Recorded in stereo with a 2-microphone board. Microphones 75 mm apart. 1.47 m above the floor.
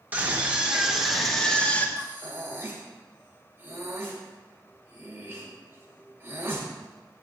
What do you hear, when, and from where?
0.1 s a scream: 20° right (ahead or behind), 1.7 m; by 1.9 s 20° left (ahead or behind), 1.3 m
2.0 s breathing: 30° right (ahead or behind), 1.9 m